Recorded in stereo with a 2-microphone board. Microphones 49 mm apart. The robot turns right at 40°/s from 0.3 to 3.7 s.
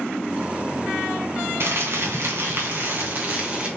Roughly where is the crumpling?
Right.